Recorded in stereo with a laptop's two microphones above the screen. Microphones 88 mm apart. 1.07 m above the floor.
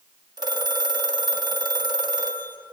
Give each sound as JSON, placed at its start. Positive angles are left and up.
{"t": 0.4, "sound": "a phone ringing", "side_deg": -55, "distance_m": 1.4}